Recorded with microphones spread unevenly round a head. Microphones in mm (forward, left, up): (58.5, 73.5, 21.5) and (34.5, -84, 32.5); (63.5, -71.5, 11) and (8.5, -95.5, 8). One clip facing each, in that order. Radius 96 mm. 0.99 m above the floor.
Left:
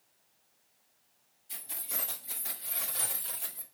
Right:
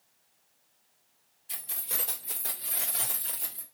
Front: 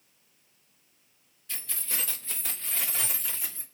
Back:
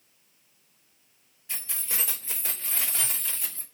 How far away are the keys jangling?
About 2.5 m.